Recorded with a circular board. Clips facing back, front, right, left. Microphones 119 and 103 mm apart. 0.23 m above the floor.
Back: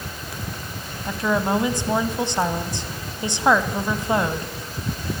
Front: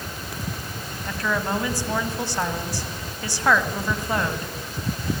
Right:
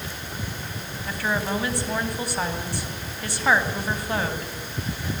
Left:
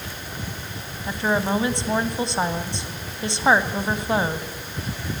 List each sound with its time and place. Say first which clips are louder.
1.1 s a woman speaking: back 4 dB, left 4 dB; 130° left, 1.8 m